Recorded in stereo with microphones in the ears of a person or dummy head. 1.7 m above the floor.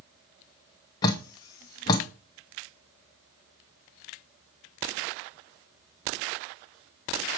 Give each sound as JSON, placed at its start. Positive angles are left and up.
{"t": 1.0, "sound": "dripping", "side_deg": 20, "distance_m": 0.6}